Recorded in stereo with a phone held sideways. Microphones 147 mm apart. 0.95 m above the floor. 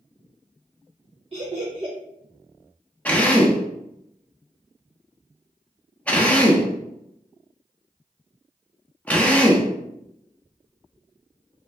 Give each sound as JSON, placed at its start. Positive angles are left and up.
{"t": 1.3, "sound": "laughter", "side_deg": -40, "distance_m": 0.6}
{"t": 3.0, "sound": "a drill", "side_deg": 10, "distance_m": 0.6}